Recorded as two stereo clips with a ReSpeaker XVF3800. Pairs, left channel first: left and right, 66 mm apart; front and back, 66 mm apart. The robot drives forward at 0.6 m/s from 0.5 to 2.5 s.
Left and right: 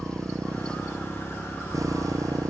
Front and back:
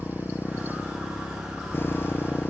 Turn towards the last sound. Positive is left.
turn(degrees=-55)